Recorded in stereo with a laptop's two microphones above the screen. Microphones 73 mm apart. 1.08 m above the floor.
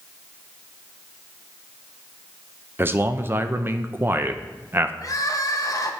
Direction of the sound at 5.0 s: 50° left (ahead or behind).